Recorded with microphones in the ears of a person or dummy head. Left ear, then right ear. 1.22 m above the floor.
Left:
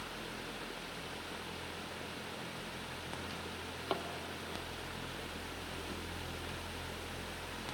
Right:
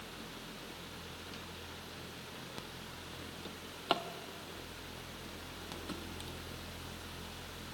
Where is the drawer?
35° right (ahead or behind), 0.9 m.